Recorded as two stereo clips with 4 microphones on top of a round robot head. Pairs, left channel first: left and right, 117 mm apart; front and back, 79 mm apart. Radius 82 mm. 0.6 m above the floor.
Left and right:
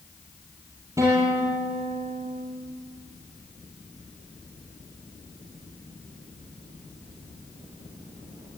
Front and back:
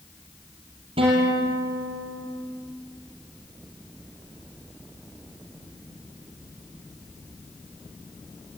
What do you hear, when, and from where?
1.0 s a guitar: 160° right, 5 m